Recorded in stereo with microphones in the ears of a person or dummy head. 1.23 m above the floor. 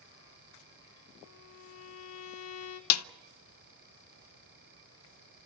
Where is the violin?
80° left, 2 m.